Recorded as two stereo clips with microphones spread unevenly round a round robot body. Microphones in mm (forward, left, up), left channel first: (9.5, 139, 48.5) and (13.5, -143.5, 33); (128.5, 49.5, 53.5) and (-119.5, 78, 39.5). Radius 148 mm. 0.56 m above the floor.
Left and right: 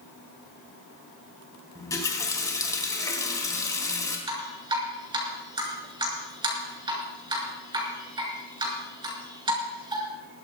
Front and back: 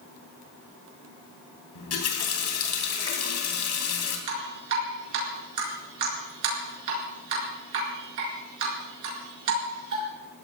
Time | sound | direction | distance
1.8 | a running tap | 10° left | 3 m
4.3 | dripping | 165° right | 5 m